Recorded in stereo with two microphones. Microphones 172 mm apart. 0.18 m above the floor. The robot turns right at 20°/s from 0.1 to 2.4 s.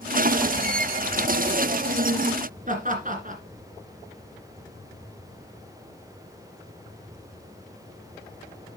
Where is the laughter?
50° right (ahead or behind), 2 m.